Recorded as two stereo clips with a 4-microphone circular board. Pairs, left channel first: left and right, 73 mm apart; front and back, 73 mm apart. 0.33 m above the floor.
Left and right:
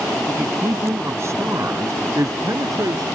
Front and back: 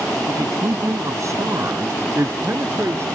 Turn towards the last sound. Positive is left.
turn(degrees=-125)